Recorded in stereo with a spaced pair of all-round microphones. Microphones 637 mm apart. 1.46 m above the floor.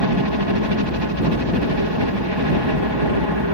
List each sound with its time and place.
0.0 s a helicopter: 40° right (ahead or behind)